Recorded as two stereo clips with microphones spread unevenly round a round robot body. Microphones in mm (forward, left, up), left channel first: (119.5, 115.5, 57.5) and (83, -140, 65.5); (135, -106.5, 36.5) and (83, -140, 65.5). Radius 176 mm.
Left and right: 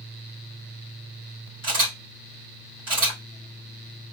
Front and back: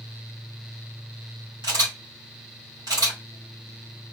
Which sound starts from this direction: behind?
A camera shutter, at 1.6 s.